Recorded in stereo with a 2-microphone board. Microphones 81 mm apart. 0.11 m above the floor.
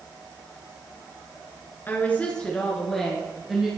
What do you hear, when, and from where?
1.9 s a woman speaking: 25° left (ahead or behind), 1.7 m; by 3.7 s 5° right (ahead or behind), 2.5 m